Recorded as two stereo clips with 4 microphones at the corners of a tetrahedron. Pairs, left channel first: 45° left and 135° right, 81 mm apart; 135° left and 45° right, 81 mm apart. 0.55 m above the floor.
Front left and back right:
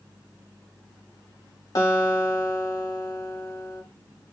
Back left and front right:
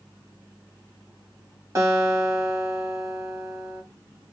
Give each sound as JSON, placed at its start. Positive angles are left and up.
{"t": 1.8, "sound": "a guitar", "azimuth_deg": 5, "distance_m": 1.7}